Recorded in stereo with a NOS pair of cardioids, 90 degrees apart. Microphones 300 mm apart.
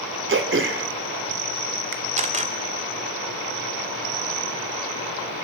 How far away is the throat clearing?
About 2.5 m.